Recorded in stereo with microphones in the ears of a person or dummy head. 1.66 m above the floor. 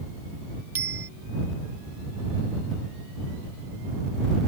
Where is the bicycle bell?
15° right (ahead or behind).